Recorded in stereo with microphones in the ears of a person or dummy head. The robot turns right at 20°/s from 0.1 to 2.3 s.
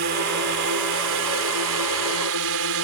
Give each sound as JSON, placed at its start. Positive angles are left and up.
{"t": 0.0, "sound": "a drone", "azimuth_deg": -125}